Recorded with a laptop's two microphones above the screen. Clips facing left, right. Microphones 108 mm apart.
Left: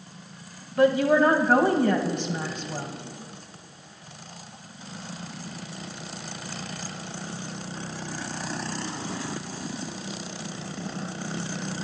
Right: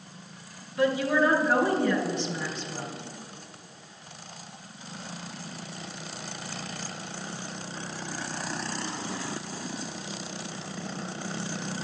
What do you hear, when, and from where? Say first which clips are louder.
0.8 s a woman speaking: left 5 dB; 50° left (ahead or behind), 1.2 m